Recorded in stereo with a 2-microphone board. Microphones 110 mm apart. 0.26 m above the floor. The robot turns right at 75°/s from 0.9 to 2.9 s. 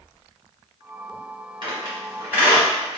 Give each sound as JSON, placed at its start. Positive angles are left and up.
{"t": 1.6, "sound": "a squeak", "side_deg": -50, "distance_m": 1.3}